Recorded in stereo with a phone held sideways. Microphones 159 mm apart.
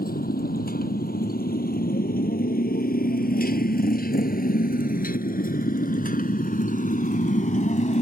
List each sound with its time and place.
0.0 s a motorcycle: 80° left; by 8.0 s 55° left (ahead or behind)